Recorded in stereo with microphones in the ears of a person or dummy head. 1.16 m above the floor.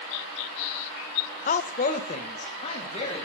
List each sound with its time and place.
1.5 s a woman speaking: 35° left (ahead or behind), 0.5 m